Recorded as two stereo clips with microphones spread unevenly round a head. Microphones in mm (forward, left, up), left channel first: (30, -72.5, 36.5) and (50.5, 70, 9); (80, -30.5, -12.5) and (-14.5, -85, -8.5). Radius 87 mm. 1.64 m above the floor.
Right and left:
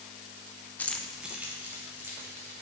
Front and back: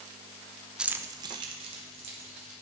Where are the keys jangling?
85° right, 0.6 m; by 2.5 s 160° left, 2 m.